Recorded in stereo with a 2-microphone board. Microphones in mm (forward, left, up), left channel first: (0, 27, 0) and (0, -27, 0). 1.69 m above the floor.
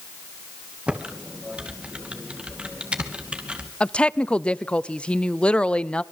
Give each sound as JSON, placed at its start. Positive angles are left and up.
{"t": 0.9, "sound": "typing on a keyboard", "side_deg": -20, "distance_m": 2.5}
{"t": 3.8, "sound": "a woman speaking", "side_deg": 20, "distance_m": 0.6}